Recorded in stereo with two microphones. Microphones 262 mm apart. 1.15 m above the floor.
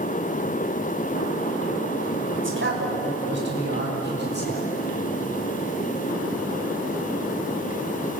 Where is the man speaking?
50° right (ahead or behind), 5.5 m; by 4.7 s 40° right (ahead or behind), 8 m.